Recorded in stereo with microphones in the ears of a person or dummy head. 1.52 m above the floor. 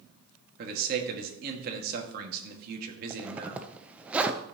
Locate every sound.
0.6 s a man speaking: 55° right (ahead or behind), 1.8 m
3.1 s a zipper: 10° right (ahead or behind), 0.6 m